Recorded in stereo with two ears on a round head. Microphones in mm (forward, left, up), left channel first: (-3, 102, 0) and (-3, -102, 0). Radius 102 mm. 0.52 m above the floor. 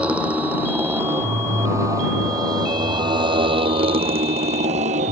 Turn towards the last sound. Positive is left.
turn(degrees=-35)  # may be behind; listen again after turning